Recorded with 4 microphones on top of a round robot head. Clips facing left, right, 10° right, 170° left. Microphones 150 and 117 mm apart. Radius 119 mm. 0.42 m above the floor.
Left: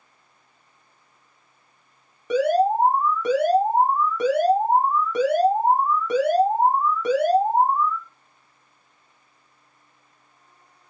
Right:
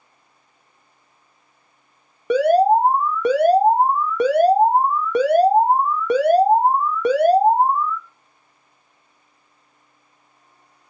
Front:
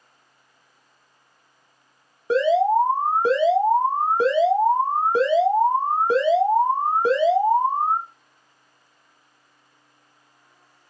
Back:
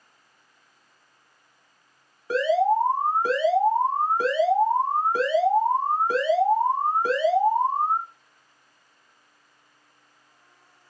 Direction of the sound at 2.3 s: 75° right.